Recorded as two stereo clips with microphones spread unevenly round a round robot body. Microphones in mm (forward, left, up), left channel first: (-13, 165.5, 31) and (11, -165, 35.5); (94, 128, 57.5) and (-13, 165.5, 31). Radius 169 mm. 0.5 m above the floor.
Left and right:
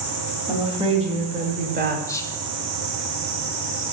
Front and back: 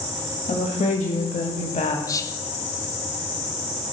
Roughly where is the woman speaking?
Ahead.